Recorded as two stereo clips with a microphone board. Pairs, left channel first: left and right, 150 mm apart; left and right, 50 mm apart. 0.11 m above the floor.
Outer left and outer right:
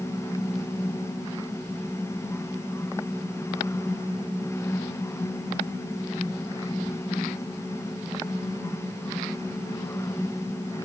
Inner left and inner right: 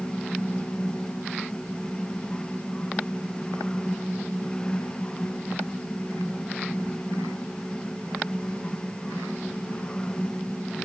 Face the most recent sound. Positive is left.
No sound to turn to.